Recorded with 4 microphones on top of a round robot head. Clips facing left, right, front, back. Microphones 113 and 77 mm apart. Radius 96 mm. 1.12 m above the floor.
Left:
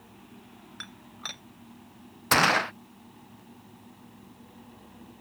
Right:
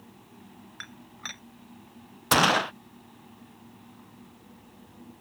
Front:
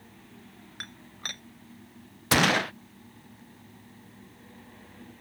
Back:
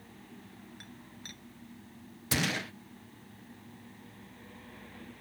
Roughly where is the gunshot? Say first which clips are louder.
Right 1 dB, front 10 dB; ahead.